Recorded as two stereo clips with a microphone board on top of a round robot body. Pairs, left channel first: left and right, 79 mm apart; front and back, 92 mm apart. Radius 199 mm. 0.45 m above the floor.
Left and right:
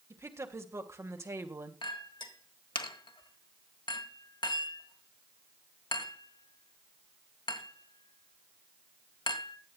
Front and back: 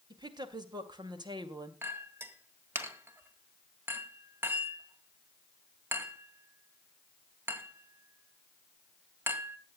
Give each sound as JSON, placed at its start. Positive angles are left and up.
{"t": 0.1, "sound": "a woman speaking", "azimuth_deg": -145, "distance_m": 2.5}
{"t": 1.8, "sound": "a clink", "azimuth_deg": 115, "distance_m": 1.8}